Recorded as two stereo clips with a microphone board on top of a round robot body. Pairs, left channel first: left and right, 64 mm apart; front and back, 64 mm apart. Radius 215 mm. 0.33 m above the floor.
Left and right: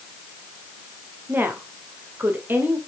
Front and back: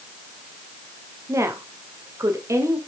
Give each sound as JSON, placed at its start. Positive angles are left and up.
{"t": 1.3, "sound": "a woman speaking", "azimuth_deg": -145, "distance_m": 2.5}